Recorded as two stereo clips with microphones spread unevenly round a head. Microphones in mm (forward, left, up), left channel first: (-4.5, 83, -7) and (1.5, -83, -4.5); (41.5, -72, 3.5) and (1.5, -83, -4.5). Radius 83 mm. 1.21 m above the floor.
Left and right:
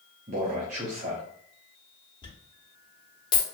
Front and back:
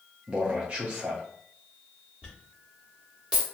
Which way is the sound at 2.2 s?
130° left.